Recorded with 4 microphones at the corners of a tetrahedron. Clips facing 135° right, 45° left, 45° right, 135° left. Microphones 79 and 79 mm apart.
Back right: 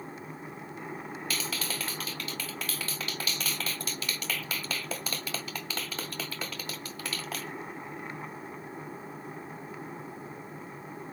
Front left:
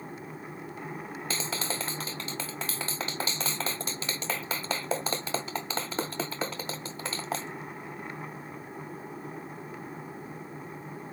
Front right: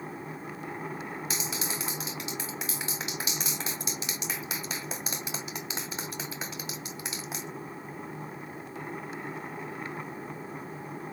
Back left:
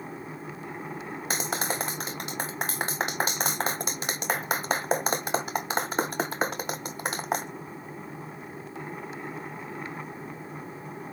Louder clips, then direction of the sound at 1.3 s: Front left 3 dB, back left 9 dB; 105° left.